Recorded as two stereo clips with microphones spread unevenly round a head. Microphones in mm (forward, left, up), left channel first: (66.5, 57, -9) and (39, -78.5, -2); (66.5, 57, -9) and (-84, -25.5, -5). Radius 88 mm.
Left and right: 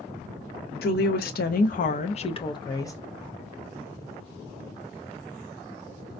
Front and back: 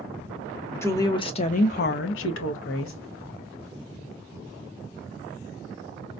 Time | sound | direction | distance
0.8 | a woman speaking | 105° left | 0.8 m